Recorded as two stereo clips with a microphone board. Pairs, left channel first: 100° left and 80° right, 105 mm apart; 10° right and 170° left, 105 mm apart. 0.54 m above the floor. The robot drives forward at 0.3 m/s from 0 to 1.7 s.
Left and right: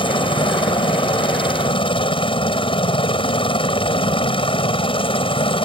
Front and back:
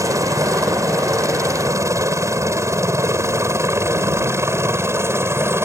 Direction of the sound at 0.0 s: 115° left.